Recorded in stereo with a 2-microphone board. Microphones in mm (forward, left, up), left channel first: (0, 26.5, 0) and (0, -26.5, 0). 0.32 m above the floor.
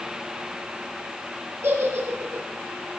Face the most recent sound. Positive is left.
turn(degrees=-50)  # may be behind; listen again after turning